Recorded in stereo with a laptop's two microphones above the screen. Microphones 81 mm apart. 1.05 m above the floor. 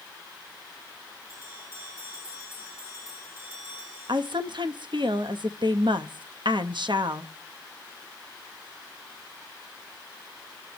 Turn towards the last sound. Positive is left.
turn(degrees=-70)  # may be behind; listen again after turning